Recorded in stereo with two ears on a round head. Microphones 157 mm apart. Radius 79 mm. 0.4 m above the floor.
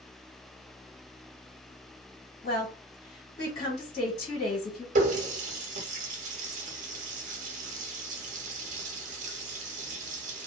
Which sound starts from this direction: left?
A woman speaking, at 2.4 s.